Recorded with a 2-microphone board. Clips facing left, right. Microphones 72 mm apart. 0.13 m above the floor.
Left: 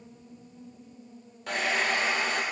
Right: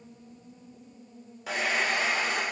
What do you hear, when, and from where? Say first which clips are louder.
1.5 s a hair dryer: even; 5° right (ahead or behind), 0.9 m